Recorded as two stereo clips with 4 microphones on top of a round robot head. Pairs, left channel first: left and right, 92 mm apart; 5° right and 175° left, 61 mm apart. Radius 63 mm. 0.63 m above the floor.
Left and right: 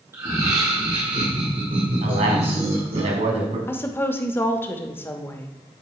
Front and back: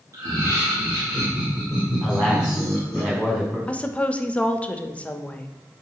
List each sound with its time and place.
0.1 s laughter: 145° right, 1.6 m; by 3.0 s 95° right, 3 m
2.0 s a man speaking: 95° right, 4 m
3.7 s a woman speaking: 45° left, 0.9 m